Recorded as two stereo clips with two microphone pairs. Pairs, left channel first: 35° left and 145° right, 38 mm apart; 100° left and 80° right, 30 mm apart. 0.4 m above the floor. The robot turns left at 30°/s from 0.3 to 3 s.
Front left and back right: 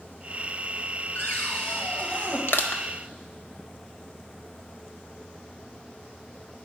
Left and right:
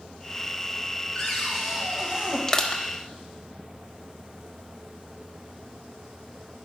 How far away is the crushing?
About 0.8 m.